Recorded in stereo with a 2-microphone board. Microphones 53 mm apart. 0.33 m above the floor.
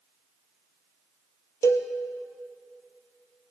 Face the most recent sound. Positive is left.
turn(degrees=85)